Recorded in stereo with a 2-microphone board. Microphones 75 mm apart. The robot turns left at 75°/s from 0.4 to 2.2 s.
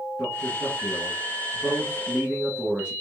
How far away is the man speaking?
About 1.7 m.